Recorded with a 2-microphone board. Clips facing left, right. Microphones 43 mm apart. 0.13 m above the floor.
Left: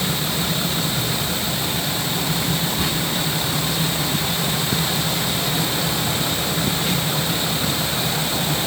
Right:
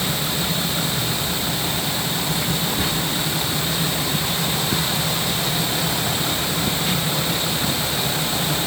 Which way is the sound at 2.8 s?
30° right (ahead or behind).